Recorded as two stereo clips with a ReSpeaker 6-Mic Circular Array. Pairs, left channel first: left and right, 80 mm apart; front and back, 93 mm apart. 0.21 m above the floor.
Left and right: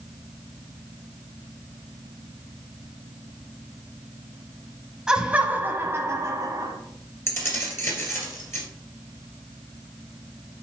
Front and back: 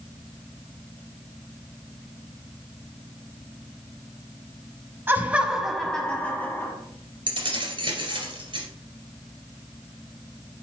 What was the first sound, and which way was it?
Laughter, 155° right.